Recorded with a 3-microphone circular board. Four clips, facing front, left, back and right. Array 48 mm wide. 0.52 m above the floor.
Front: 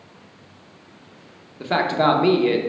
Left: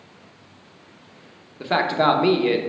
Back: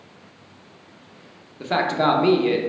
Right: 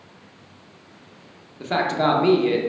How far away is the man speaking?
About 0.7 m.